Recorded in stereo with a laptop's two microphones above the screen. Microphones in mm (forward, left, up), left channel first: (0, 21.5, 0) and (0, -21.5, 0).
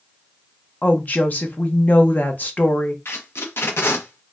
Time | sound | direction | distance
0.8 | a woman speaking | 40° left (ahead or behind) | 0.6 m
3.0 | tape being pulled | 65° left (ahead or behind) | 0.6 m